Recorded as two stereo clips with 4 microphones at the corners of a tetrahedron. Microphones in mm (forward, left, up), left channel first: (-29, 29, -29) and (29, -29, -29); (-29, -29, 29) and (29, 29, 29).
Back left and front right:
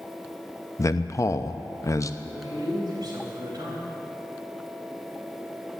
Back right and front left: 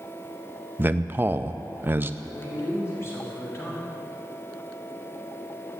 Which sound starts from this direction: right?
A man speaking, at 2.2 s.